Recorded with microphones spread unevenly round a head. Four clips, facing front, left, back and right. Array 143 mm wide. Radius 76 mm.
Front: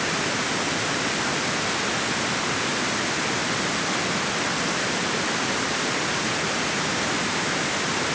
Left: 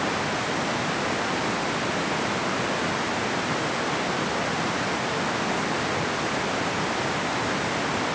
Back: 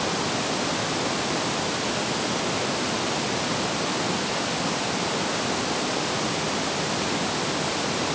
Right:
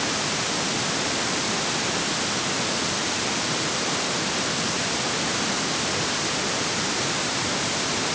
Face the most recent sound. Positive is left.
No sound to turn to.